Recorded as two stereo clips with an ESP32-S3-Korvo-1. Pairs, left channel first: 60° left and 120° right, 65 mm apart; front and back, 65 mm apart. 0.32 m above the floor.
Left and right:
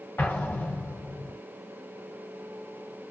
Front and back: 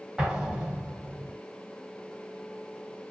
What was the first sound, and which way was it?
An explosion, 105° left.